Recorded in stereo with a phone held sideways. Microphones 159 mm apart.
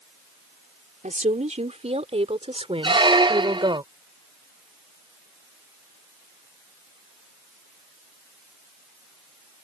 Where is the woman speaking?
50° right (ahead or behind); by 3.8 s 30° right (ahead or behind).